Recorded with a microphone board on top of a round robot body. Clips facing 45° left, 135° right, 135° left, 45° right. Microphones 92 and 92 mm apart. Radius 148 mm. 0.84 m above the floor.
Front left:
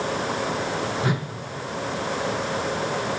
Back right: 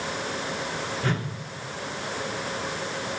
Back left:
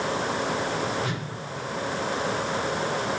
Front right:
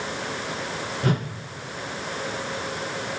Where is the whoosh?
30° right, 1.3 m.